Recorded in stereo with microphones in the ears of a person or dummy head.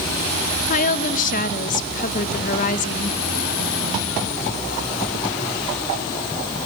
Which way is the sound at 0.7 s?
45° left (ahead or behind).